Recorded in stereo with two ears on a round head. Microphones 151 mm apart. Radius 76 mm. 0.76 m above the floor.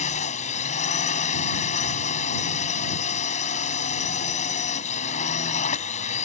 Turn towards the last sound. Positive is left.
turn(degrees=45)  # may be behind; listen again after turning